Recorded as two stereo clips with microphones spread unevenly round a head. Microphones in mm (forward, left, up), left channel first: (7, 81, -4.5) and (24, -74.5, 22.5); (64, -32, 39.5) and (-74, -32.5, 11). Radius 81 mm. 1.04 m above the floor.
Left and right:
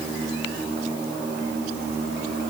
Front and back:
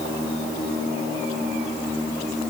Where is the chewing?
I don't hear chewing.